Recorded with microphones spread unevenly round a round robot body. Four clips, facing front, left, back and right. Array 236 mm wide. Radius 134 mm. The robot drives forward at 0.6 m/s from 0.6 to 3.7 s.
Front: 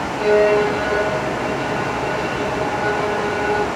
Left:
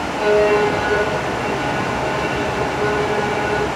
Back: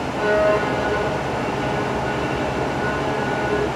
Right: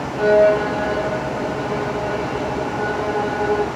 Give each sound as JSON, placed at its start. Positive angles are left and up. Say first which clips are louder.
{"t": 0.2, "sound": "a violin", "louder": "right 1 dB, front 4 dB", "azimuth_deg": -90, "distance_m": 9.0}